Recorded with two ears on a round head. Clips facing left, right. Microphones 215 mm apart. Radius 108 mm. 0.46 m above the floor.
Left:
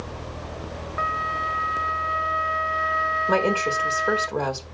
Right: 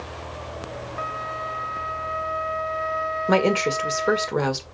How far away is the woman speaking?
About 1.6 m.